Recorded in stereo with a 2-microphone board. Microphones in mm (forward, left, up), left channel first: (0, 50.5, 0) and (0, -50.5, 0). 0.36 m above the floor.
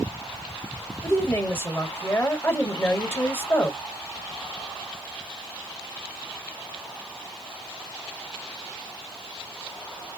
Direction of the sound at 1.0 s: 25° left (ahead or behind).